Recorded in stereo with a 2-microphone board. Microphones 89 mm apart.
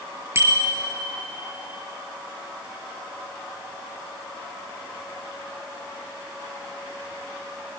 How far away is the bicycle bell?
About 3.5 m.